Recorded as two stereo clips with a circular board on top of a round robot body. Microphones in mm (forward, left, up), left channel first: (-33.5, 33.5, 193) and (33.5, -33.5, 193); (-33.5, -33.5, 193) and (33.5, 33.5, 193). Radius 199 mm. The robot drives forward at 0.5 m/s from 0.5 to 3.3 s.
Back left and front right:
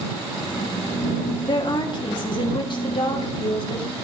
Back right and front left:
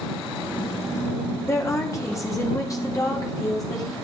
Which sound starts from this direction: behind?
A woman speaking, at 1.5 s.